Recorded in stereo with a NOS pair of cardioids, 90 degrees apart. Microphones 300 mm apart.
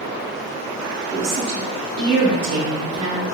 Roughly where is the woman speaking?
Ahead right.